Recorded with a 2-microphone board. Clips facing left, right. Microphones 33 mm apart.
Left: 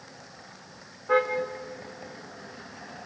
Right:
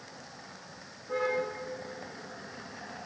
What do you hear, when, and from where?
1.1 s a car horn: 75° left (ahead or behind), 9.5 m; by 3.1 s 65° left (ahead or behind), 9.5 m